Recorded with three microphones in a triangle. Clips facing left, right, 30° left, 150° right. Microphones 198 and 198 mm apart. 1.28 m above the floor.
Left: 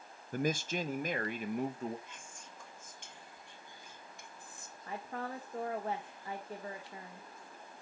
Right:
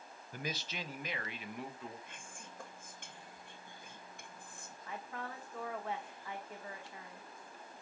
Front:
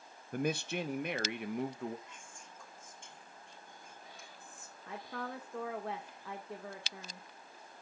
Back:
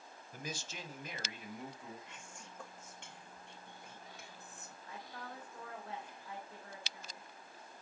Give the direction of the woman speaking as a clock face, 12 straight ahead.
11 o'clock.